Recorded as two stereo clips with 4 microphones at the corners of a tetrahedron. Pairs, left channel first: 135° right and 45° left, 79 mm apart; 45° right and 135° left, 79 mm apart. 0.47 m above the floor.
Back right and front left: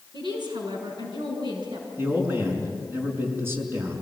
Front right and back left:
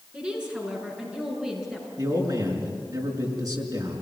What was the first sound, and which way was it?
A woman speaking, 60° left.